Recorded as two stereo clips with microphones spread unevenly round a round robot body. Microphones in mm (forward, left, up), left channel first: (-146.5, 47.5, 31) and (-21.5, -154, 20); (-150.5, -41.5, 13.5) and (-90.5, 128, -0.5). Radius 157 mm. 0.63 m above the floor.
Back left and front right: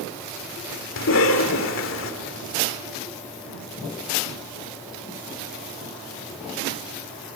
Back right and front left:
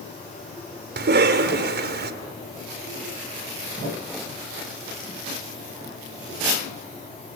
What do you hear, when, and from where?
1.0 s a cough: 80° left, 2.5 m